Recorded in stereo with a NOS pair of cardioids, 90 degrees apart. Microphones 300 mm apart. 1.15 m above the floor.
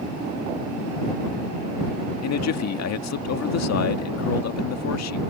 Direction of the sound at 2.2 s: 60° left.